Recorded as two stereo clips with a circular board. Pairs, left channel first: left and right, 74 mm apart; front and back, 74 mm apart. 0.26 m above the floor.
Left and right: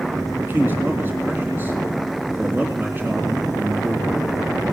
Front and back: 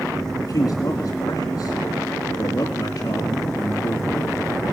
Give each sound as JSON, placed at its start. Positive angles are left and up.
{"t": 0.4, "sound": "a man speaking", "azimuth_deg": -35, "distance_m": 3.5}